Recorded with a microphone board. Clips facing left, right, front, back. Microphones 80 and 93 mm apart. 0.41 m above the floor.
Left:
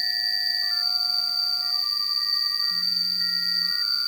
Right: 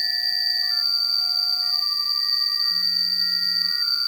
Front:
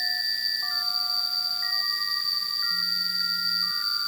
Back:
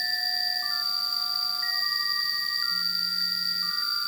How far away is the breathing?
I don't hear breathing.